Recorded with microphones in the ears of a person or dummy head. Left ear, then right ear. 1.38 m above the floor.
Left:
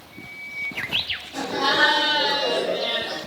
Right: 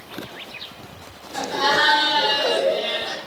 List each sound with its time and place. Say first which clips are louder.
1.3 s laughter: right 2 dB; 40° right (ahead or behind), 1.6 m; by 3.2 s 70° right (ahead or behind), 1.2 m